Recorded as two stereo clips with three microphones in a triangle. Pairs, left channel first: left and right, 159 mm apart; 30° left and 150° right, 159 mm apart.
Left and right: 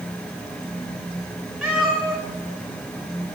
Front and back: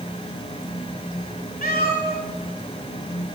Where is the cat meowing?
Straight ahead, 3.5 m.